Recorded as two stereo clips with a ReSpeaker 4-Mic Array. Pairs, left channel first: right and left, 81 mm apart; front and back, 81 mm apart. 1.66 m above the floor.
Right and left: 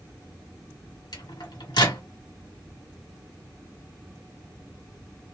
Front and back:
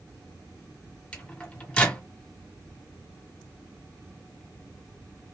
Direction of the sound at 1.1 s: 75° right.